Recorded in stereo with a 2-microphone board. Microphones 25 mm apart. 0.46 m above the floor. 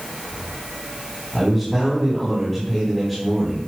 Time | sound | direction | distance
1.3 | a man speaking | centre (ahead or behind) | 4 m